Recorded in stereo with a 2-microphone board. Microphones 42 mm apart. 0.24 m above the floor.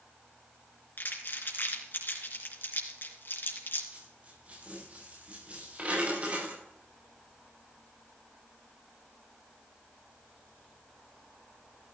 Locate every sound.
1.0 s crumpling: 55° left (ahead or behind), 3.5 m
3.9 s a dropped coin: 30° right (ahead or behind), 7.5 m